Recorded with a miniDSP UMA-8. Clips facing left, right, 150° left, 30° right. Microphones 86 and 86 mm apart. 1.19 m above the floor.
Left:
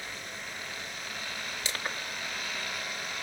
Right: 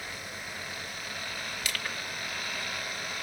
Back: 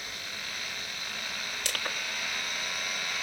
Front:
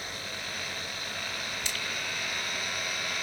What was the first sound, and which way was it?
Crushing, 150° left.